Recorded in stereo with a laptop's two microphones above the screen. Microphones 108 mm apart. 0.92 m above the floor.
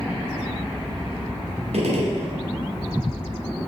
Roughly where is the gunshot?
Right.